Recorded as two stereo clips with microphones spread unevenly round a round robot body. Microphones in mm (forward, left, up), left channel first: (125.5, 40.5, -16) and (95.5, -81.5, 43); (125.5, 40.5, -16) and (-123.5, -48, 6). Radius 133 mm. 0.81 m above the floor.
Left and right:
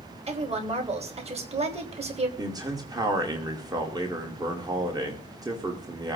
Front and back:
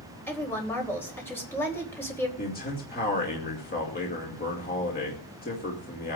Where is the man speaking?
35° right, 2.5 m.